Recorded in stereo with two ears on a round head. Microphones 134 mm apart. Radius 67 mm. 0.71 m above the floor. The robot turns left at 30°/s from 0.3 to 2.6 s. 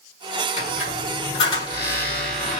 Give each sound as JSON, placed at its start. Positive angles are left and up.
{"t": 0.6, "sound": "a squeak", "azimuth_deg": 60, "distance_m": 1.4}